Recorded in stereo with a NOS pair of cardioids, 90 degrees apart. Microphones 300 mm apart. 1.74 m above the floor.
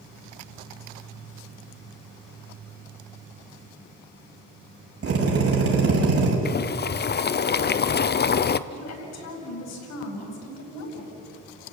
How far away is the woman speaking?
About 8.5 m.